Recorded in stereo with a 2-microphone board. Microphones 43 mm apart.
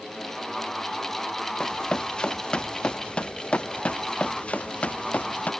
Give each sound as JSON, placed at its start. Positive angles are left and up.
{"t": 1.6, "sound": "running footsteps", "side_deg": 20}